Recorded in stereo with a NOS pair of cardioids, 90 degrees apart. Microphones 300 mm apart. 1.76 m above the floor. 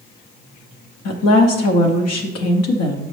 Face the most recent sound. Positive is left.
turn(degrees=65)